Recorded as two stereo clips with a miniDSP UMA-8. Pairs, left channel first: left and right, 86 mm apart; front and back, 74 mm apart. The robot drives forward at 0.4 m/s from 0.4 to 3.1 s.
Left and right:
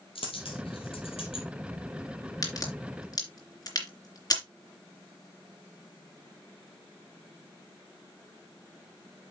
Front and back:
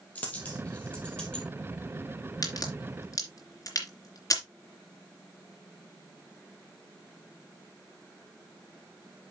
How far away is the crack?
About 3 m.